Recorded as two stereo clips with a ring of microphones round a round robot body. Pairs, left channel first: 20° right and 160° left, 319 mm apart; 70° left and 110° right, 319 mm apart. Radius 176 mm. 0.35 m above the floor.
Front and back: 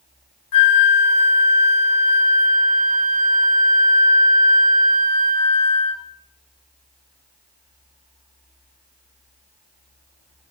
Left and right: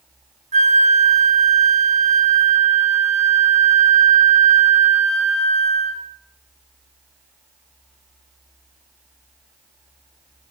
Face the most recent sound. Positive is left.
turn(degrees=-45)